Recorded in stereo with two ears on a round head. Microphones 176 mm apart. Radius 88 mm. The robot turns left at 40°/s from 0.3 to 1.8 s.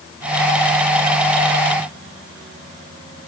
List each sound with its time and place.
Only background noise.